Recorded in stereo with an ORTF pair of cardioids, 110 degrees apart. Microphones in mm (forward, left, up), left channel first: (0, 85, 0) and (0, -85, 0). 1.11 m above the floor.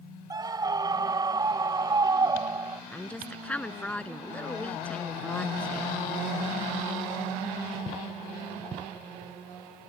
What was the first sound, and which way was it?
A scream, 25° right.